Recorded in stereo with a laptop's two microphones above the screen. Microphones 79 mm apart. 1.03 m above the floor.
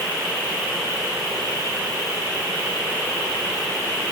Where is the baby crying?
No baby crying in this recording.